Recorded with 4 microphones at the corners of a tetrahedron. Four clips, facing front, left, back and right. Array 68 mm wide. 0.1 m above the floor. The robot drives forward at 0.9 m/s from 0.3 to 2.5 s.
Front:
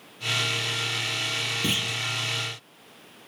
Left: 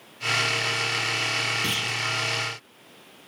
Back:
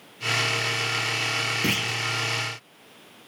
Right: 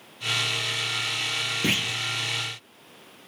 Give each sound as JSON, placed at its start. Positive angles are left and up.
{"t": 1.6, "sound": "a clunk", "azimuth_deg": -120, "distance_m": 2.5}